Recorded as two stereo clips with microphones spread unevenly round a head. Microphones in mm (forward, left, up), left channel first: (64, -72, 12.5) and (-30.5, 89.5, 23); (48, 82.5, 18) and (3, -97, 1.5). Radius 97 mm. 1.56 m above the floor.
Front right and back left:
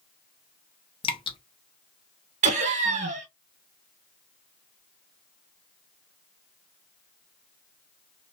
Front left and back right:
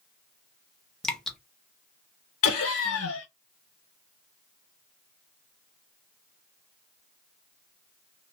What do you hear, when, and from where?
1.0 s dripping: 5° right, 0.7 m
2.4 s laughter: 65° left, 1.5 m